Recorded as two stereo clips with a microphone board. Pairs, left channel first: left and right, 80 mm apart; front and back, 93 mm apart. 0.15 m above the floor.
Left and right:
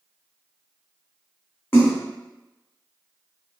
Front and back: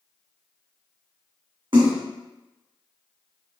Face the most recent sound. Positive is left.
turn(degrees=155)